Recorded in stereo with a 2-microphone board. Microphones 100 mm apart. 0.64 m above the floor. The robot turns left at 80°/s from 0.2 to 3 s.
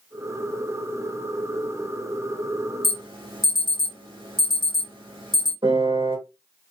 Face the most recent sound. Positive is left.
turn(degrees=-65)  # may be behind; listen again after turning